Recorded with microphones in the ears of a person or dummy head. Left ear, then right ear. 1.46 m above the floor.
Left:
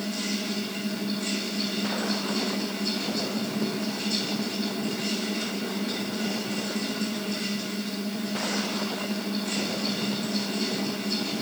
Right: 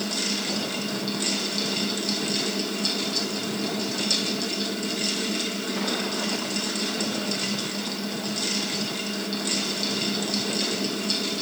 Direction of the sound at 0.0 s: 60° right (ahead or behind).